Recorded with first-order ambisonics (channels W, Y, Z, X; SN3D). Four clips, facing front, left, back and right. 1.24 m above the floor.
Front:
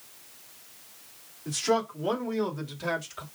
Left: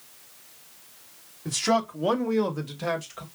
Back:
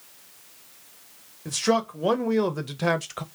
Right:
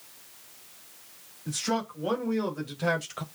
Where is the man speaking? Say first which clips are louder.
Left 6 dB, back 3 dB; 135° left, 2 m; by 3.2 s 160° right, 1.1 m.